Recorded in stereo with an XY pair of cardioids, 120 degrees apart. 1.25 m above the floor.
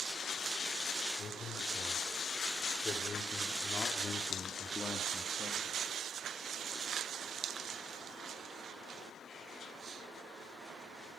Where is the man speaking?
45° left, 6 m; by 5.7 s 25° left, 2.5 m.